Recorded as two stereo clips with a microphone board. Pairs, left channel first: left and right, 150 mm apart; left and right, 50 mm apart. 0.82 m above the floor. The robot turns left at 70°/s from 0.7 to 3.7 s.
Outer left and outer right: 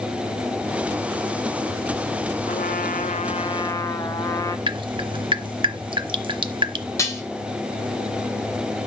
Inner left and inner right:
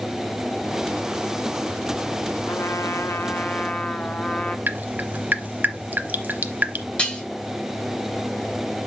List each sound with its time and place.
2.5 s a trumpet: 110° left, 0.9 m; by 4.6 s 25° left, 0.9 m
4.7 s dripping: 35° right (ahead or behind), 0.8 m
7.0 s dishes clattering: 20° left (ahead or behind), 2 m